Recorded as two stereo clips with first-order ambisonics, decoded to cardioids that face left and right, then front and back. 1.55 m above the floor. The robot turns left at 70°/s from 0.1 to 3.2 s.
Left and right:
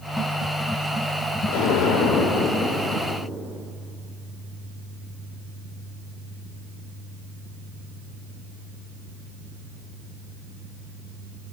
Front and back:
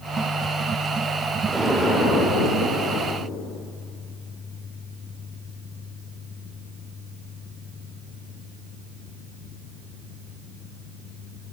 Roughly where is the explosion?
Left.